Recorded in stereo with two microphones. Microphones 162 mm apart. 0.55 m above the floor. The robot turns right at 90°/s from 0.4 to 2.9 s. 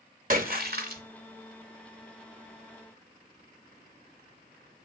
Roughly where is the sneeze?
I don't hear a sneeze.